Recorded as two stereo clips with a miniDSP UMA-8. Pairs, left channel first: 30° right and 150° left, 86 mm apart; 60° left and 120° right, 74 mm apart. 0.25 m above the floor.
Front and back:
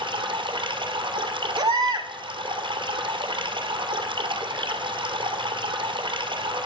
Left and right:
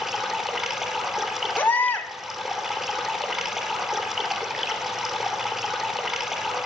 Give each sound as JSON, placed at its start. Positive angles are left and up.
{"t": 0.0, "sound": "running water", "azimuth_deg": 155, "distance_m": 1.4}
{"t": 1.6, "sound": "a baby crying", "azimuth_deg": 125, "distance_m": 0.6}